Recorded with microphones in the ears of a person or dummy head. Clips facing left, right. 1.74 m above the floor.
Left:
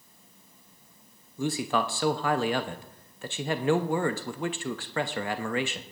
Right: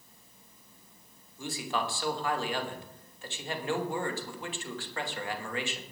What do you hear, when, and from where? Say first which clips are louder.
1.4 s a man speaking: left 6 dB; 40° left (ahead or behind), 0.7 m